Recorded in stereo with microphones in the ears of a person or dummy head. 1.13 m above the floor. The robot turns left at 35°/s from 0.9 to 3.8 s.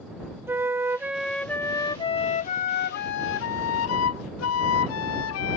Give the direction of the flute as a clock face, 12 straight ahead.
5 o'clock.